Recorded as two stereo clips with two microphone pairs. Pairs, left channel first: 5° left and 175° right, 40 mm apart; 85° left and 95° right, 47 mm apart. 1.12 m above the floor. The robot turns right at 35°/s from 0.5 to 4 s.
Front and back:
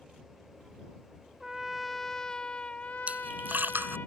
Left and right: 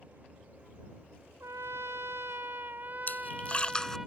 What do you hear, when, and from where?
1.4 s a trumpet: 100° right; by 4.1 s 10° right
3.1 s a splash: 135° left; by 4.0 s 165° left